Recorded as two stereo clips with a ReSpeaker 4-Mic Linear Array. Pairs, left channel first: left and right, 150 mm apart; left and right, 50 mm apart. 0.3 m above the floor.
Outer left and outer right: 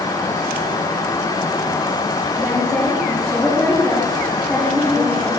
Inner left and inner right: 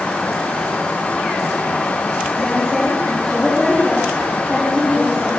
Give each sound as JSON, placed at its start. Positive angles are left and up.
{"t": 2.4, "sound": "a woman speaking", "side_deg": 5, "distance_m": 6.5}